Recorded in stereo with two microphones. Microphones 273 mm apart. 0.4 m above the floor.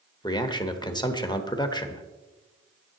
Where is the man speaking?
15° left (ahead or behind), 1.0 m.